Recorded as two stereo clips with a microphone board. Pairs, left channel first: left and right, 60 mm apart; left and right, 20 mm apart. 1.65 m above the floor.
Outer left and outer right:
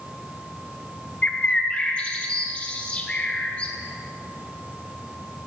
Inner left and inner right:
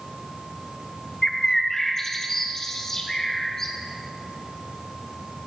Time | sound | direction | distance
1.2 | a bird | 20° left (ahead or behind) | 0.9 m